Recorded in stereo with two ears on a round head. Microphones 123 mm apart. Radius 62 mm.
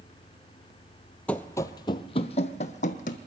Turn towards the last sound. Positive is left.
turn(degrees=60)  # may be behind; listen again after turning